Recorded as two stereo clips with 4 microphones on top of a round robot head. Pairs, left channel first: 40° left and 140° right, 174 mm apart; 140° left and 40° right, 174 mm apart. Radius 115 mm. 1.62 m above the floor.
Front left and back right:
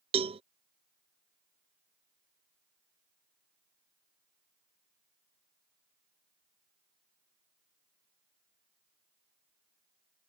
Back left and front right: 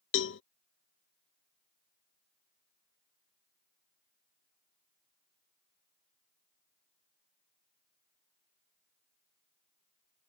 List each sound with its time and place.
0.1 s a cowbell: 155° left